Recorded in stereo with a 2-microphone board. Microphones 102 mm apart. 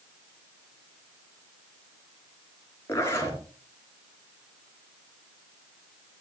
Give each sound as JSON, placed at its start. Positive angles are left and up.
{"t": 2.9, "sound": "a zipper", "side_deg": 30, "distance_m": 4.5}